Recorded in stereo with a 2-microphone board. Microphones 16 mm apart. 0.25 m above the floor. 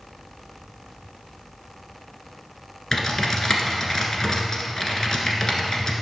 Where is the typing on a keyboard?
35° left (ahead or behind), 1.4 m.